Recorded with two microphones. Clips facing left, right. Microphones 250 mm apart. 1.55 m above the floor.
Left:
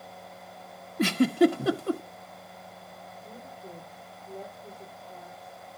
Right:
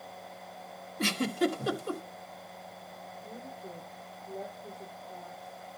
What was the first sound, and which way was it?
A giggle, 60° left (ahead or behind).